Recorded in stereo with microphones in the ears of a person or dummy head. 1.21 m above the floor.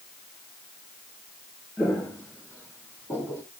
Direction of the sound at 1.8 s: 10° left (ahead or behind).